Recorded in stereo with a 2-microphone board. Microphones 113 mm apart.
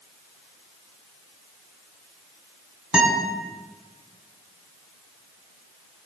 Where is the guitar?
5° right (ahead or behind), 5 m.